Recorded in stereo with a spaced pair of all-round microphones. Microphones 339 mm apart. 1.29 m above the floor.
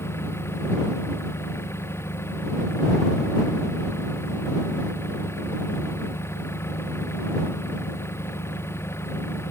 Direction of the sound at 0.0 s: 5° left (ahead or behind).